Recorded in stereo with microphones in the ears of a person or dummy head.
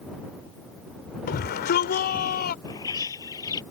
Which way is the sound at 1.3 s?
45° left (ahead or behind).